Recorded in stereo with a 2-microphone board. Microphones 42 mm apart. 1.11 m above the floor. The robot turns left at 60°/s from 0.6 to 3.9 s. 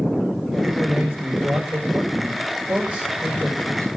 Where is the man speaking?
15° right, 5.5 m; by 3.9 s 150° left, 5.5 m.